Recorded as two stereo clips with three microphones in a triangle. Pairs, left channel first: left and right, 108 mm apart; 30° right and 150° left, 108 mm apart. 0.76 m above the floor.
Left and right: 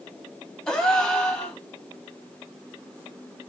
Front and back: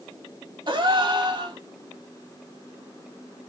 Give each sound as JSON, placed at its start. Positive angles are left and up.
{"t": 0.7, "sound": "a gasp", "azimuth_deg": 170, "distance_m": 1.5}